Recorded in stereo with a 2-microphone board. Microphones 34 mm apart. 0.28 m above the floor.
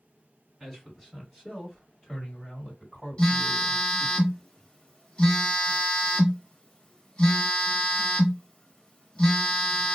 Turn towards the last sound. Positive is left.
turn(degrees=30)  # may be behind; listen again after turning